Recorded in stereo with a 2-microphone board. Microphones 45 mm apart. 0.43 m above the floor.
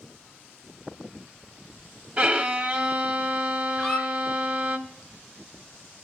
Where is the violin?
30° right (ahead or behind), 0.6 m.